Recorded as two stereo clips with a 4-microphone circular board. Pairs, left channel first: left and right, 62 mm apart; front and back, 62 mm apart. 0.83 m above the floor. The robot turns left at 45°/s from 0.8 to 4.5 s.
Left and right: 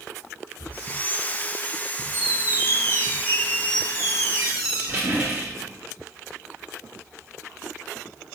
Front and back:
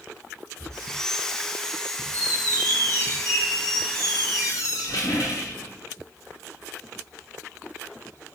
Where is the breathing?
75° left, 1.9 m.